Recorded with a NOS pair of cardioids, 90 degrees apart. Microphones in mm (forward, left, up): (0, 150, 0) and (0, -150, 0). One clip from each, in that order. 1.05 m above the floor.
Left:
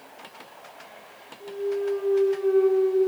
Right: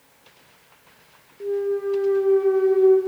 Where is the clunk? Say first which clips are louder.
Right 4 dB; 55° right, 0.8 m.